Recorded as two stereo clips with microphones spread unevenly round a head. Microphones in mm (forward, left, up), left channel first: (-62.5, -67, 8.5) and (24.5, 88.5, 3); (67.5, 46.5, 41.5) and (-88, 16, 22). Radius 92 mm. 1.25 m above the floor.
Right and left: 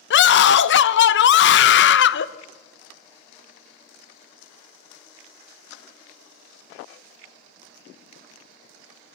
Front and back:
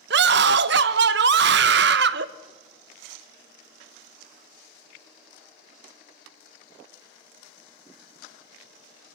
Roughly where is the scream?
Behind right.